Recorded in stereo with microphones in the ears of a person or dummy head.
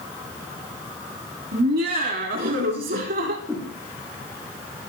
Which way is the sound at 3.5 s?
10° right (ahead or behind).